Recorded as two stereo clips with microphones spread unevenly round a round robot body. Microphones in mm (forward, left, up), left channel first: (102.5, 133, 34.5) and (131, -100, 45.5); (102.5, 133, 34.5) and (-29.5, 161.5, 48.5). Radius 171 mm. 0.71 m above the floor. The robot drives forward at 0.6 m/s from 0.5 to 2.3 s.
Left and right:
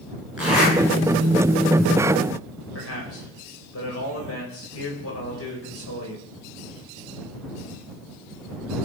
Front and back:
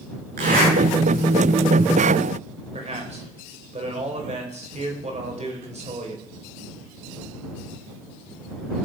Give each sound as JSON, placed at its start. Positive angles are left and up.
{"t": 0.4, "sound": "a zipper", "azimuth_deg": -170, "distance_m": 10.0}
{"t": 2.7, "sound": "a man speaking", "azimuth_deg": 135, "distance_m": 4.0}